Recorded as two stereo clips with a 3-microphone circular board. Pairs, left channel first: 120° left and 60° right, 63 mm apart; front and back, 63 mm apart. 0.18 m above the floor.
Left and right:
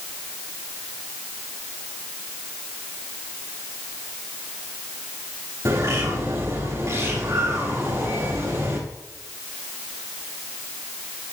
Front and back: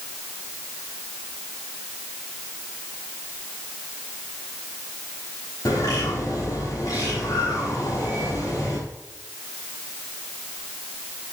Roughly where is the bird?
Ahead.